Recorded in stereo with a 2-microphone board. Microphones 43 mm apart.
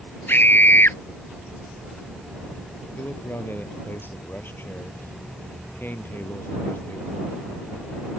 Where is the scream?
60° left (ahead or behind).